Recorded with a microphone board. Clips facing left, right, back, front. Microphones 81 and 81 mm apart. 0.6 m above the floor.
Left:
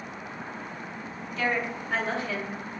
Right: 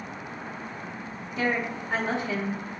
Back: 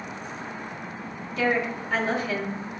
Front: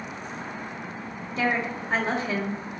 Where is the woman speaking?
35° right, 0.9 m.